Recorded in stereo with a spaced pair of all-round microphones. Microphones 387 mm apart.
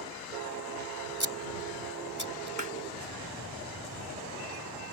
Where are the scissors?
50° left (ahead or behind).